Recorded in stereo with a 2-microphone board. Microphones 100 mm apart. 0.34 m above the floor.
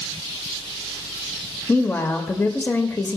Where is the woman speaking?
25° left (ahead or behind), 0.8 m.